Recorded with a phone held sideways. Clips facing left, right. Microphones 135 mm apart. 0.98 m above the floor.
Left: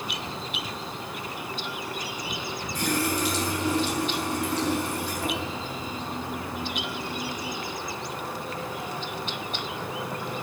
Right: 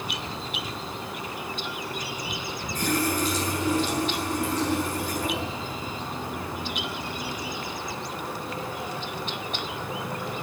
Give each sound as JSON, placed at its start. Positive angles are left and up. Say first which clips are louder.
{"t": 2.8, "sound": "a running tap", "louder": "right 1 dB", "side_deg": 90, "distance_m": 7.0}